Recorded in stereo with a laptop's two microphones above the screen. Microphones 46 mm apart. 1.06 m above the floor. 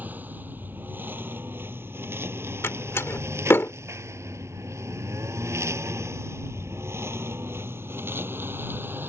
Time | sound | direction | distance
0.0 | a lawn mower | 40° right (ahead or behind) | ?
2.6 | a door slam | 60° left (ahead or behind) | ?